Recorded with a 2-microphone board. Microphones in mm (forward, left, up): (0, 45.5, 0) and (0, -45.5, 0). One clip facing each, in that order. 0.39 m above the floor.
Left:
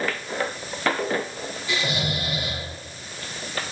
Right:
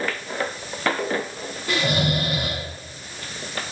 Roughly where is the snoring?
Right.